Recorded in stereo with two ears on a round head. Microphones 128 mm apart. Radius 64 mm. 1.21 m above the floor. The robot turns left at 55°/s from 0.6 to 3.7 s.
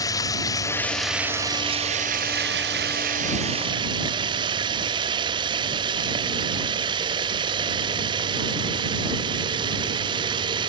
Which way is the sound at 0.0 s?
25° left.